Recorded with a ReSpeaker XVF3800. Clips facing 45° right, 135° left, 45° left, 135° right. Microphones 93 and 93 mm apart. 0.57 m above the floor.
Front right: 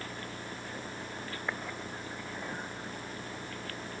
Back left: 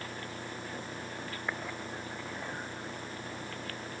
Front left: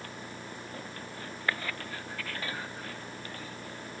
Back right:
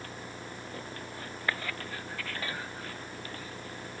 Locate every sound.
Only background noise.